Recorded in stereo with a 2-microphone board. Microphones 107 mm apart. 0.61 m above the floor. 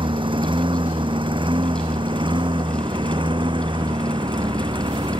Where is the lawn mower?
60° right (ahead or behind); by 5.2 s 55° right (ahead or behind).